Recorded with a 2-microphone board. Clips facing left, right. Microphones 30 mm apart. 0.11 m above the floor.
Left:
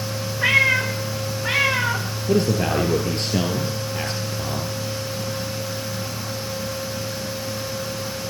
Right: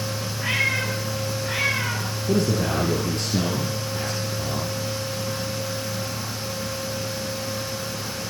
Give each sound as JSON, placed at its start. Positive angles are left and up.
{"t": 0.4, "sound": "a cat meowing", "side_deg": 85, "distance_m": 6.5}
{"t": 2.3, "sound": "a man speaking", "side_deg": 45, "distance_m": 1.8}